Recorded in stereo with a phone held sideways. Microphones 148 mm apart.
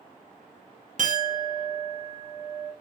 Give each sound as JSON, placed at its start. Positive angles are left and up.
{"t": 1.0, "sound": "a clink", "side_deg": -55, "distance_m": 0.5}